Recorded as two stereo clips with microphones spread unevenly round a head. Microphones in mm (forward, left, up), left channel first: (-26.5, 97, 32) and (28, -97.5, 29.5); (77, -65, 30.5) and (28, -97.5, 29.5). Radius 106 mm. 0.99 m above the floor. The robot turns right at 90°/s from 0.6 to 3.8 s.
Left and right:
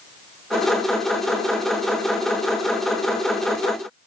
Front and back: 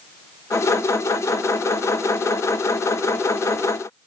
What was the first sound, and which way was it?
Only background noise.